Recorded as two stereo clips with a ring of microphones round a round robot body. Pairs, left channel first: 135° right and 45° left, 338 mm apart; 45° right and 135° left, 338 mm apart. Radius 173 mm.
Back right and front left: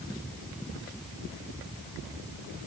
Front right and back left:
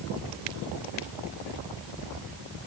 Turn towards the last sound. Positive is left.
No sound to turn to.